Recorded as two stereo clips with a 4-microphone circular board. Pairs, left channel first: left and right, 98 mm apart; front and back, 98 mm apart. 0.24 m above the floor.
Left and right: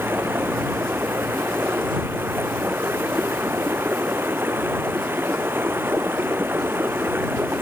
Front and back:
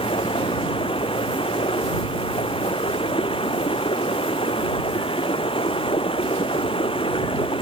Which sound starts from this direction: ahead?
Running water, at 0.0 s.